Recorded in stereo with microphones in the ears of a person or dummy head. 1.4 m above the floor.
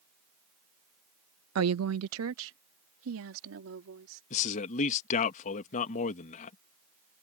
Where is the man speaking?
40° left (ahead or behind).